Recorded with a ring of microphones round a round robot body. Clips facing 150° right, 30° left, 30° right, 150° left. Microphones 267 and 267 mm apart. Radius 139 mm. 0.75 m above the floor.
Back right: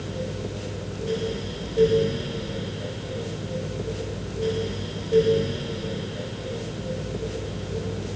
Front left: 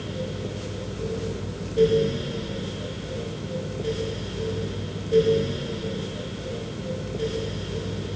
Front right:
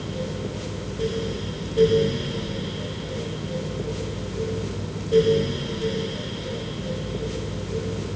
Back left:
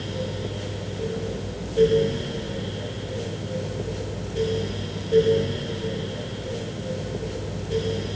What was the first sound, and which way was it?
Only background noise.